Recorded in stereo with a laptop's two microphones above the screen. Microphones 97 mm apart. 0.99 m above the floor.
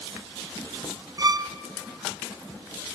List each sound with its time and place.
1.2 s a violin: 40° right (ahead or behind), 0.6 m